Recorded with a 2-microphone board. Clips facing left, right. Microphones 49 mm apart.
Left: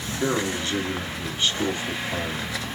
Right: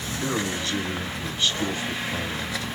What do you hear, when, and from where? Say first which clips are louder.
0.2 s a man speaking: left 3 dB; 35° left (ahead or behind), 1.8 m